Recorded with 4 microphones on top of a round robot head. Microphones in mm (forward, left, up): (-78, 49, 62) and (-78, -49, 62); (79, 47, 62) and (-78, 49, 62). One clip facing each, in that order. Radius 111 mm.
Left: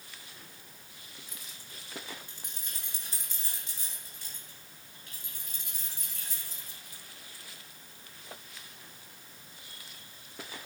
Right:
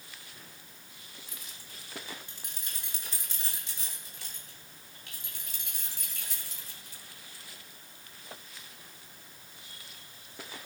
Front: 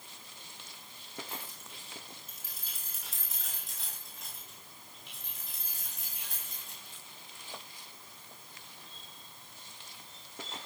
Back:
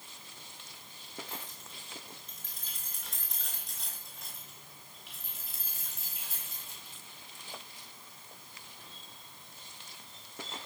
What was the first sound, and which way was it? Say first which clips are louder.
Keys jangling: even, even; 85° right.